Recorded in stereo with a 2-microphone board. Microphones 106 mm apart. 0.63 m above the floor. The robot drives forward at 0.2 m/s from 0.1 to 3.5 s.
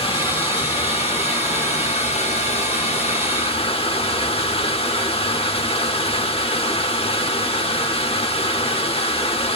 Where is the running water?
55° left (ahead or behind), 0.8 m; by 9.6 s 65° left (ahead or behind), 0.7 m.